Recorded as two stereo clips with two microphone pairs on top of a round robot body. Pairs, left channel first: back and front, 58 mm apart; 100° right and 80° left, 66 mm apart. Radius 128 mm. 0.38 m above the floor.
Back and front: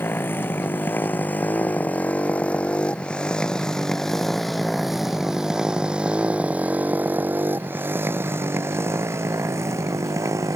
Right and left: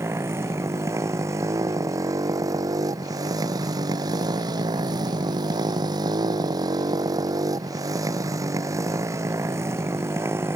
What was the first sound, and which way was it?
A motorcycle, 130° left.